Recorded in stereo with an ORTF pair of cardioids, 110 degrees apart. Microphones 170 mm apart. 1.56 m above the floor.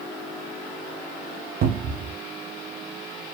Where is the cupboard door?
60° right, 0.6 m.